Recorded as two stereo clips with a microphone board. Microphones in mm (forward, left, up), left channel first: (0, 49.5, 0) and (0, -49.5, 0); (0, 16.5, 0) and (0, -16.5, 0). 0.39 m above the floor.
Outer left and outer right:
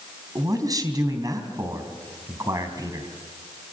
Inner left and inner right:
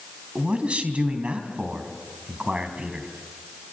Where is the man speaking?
40° right (ahead or behind), 4 m.